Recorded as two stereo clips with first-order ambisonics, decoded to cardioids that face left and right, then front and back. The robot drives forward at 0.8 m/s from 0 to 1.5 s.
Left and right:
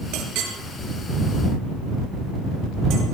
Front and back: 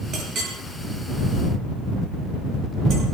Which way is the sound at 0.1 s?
120° right.